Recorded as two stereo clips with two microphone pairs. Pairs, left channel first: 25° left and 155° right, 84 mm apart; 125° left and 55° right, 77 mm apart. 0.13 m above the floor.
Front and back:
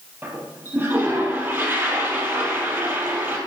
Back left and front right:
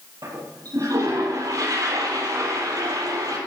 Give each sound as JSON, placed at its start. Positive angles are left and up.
{"t": 0.2, "sound": "a toilet flushing", "azimuth_deg": -90, "distance_m": 4.0}